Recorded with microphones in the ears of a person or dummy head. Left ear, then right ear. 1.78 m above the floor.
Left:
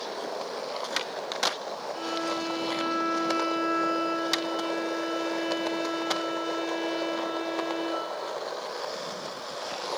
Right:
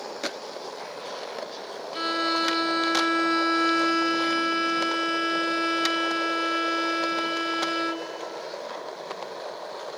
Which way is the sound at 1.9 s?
55° right (ahead or behind).